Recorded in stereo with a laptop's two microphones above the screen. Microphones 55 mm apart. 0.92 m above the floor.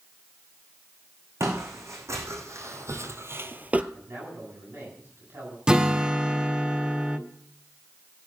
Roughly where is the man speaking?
Right.